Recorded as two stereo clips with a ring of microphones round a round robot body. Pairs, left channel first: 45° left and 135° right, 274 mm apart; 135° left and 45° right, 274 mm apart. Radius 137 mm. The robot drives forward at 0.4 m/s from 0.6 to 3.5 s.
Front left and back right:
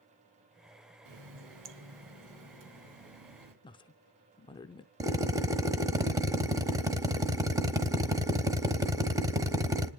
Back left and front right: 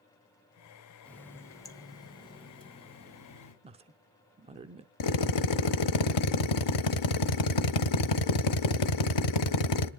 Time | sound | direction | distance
1.1 | a running tap | 140° right | 1.2 m
3.6 | a woman speaking | 5° right | 0.8 m
5.0 | a drill | 145° left | 0.9 m